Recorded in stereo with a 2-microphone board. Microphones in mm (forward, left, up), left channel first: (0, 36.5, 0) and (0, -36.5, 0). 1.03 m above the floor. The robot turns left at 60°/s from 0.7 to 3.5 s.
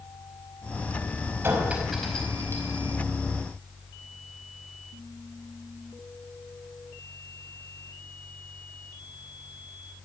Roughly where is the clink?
Right.